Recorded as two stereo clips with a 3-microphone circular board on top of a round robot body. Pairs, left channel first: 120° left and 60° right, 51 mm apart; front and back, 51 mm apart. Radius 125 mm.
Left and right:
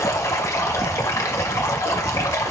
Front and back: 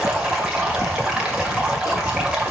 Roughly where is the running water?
Left.